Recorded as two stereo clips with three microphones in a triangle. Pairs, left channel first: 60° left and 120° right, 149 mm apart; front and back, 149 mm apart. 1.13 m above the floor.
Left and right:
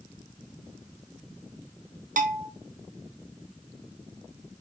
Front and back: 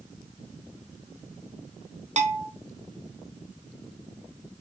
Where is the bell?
145° right, 0.7 m.